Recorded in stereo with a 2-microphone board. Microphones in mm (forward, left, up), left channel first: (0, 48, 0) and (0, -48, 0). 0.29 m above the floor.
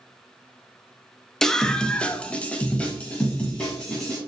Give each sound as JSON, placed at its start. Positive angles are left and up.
{"t": 1.4, "sound": "a scream", "side_deg": 5, "distance_m": 1.0}